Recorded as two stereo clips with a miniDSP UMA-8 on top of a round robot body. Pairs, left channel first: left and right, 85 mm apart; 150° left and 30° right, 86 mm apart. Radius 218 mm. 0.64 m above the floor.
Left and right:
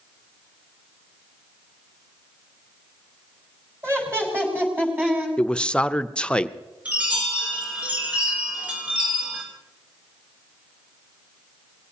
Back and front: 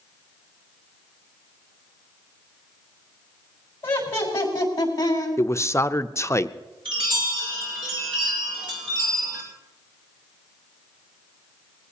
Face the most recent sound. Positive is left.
turn(degrees=-15)